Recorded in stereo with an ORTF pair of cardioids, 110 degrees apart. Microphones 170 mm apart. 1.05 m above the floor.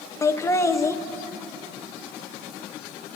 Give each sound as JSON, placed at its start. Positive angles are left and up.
{"t": 0.2, "sound": "laughter", "azimuth_deg": 20, "distance_m": 0.7}